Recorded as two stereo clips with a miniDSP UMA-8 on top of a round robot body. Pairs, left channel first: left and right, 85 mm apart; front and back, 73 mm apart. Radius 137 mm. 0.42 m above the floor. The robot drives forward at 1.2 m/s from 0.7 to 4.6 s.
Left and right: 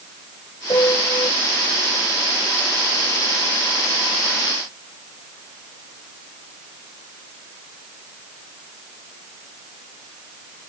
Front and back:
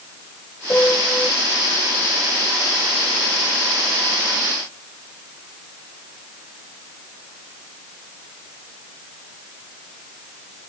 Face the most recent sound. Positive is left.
turn(degrees=130)